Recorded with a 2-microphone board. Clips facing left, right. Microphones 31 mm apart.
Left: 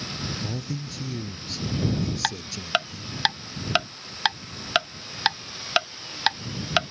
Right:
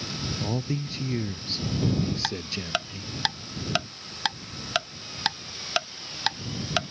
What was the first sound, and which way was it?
A man speaking, 40° right (ahead or behind).